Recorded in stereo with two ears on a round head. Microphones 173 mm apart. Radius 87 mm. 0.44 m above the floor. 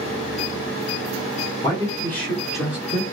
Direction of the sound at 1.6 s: 20° left (ahead or behind).